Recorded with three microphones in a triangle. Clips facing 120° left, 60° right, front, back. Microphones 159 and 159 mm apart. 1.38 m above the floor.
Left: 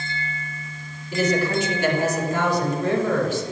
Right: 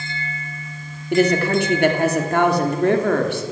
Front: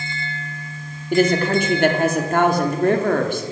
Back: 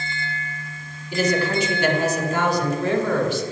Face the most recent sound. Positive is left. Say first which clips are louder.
# right 5 dB, front 4 dB
turn(degrees=-35)